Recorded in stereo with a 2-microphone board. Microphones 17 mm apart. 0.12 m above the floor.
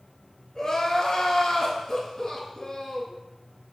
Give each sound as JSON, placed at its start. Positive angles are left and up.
{"t": 0.6, "sound": "crying", "side_deg": 35, "distance_m": 0.7}